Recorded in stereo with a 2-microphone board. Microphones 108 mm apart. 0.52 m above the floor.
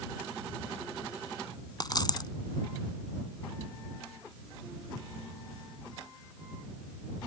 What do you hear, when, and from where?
1.8 s a dropped coin: 45° left (ahead or behind)